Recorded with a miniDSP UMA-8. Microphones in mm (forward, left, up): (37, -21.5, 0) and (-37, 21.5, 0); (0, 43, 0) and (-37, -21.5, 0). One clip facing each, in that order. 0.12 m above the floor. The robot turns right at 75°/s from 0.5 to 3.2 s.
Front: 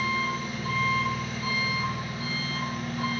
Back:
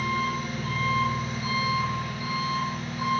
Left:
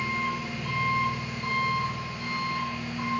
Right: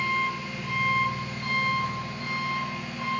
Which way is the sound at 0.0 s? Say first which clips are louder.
Back 1 dB, right 2 dB; 140° left.